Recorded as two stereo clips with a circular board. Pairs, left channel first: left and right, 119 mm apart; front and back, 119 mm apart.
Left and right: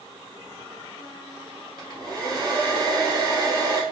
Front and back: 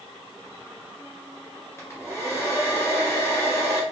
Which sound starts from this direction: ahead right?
A hair dryer, at 1.8 s.